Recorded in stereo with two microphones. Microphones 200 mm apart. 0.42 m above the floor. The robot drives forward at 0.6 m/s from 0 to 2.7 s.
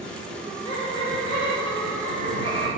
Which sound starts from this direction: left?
Laughter, at 0.3 s.